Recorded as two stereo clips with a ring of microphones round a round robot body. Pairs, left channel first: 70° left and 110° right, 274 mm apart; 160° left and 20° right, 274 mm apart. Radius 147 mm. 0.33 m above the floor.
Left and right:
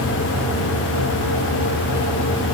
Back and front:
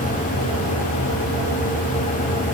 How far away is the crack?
I don't hear a crack.